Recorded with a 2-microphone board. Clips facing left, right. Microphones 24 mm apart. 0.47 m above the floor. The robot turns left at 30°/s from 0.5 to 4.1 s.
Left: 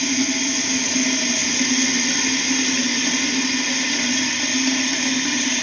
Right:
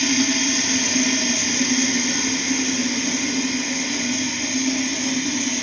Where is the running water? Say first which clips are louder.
Right 1 dB; 155° right, 1.2 m; by 5.6 s 95° left, 1.2 m.